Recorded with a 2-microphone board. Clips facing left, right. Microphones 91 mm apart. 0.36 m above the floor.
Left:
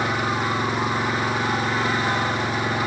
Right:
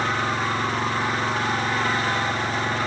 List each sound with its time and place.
0.0 s an engine running: 10° left (ahead or behind)